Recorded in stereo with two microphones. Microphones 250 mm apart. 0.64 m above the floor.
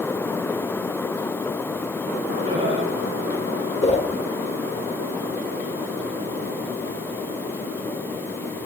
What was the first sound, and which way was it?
Laughter, 25° right (ahead or behind).